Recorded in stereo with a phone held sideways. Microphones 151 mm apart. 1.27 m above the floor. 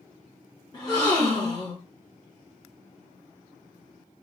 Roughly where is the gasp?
Left.